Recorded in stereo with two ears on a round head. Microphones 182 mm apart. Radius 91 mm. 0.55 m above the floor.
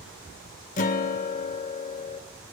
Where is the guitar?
40° left (ahead or behind), 0.6 m.